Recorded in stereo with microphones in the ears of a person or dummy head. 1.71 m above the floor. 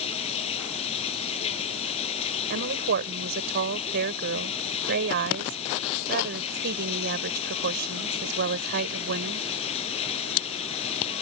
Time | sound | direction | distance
0.0 | running water | 35° left (ahead or behind) | ?
2.5 | a woman speaking | 60° right (ahead or behind) | ?